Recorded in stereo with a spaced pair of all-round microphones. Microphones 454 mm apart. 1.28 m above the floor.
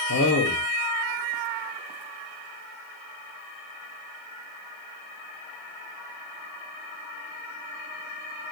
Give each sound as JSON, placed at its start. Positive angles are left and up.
{"t": 0.1, "sound": "a man speaking", "side_deg": 45, "distance_m": 0.9}